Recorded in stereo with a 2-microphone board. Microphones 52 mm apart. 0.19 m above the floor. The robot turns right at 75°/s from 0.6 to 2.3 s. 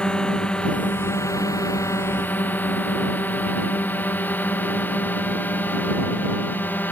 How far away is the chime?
I don't hear a chime.